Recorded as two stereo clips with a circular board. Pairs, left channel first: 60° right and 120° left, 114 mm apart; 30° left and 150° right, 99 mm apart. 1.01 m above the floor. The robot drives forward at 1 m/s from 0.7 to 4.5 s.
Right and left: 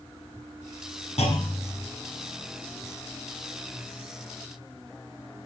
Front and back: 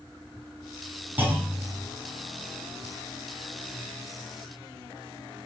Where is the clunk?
80° right, 7 m; by 1.9 s 85° right, 6.5 m.